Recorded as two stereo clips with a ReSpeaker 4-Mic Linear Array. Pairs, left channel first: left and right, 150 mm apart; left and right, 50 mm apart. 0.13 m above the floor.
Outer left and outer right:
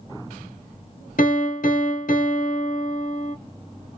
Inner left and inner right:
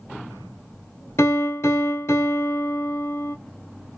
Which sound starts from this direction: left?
A piano, at 1.2 s.